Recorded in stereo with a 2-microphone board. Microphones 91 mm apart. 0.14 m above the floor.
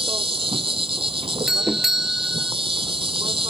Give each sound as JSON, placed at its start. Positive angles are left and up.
{"t": 0.0, "sound": "an insect", "side_deg": -80}
{"t": 1.5, "sound": "a doorbell", "side_deg": -5}